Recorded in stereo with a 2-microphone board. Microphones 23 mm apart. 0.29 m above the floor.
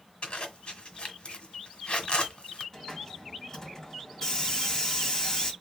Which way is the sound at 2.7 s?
20° left (ahead or behind).